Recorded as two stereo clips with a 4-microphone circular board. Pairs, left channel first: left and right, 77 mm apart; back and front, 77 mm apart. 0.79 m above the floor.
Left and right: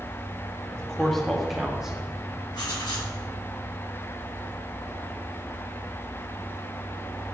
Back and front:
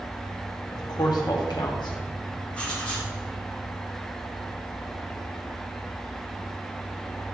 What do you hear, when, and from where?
0.7 s a man speaking: 165° left, 0.9 m; by 2.4 s 170° right, 1.6 m
2.5 s writing: 105° left, 2 m